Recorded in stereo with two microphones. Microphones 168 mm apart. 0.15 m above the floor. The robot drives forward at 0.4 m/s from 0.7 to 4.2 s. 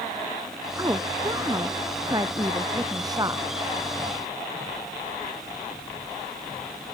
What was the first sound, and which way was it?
A woman speaking, 20° right (ahead or behind).